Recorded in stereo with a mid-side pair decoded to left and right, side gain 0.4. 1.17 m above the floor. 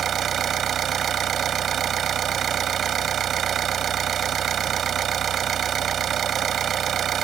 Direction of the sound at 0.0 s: 65° right.